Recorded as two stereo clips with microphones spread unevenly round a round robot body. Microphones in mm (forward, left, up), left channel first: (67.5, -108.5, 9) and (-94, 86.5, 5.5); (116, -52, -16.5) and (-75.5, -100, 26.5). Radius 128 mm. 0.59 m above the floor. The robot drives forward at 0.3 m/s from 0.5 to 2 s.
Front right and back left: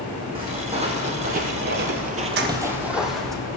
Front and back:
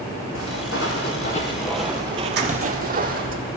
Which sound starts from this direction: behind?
Keys jangling, at 2.4 s.